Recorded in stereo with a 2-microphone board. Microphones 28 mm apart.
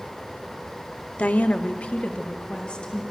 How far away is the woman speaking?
About 0.8 m.